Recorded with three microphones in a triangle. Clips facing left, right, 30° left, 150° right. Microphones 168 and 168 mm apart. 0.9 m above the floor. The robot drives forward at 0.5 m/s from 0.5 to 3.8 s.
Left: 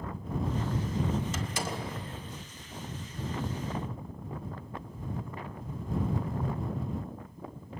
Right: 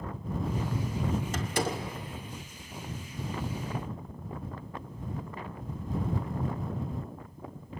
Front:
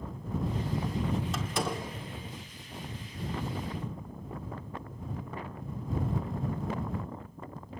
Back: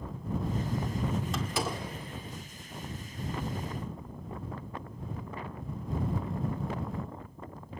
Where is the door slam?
60° right, 1.8 m; by 1.9 s 65° right, 1.6 m.